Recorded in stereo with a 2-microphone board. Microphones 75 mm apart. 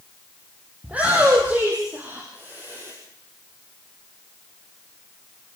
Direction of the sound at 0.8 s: 20° right (ahead or behind).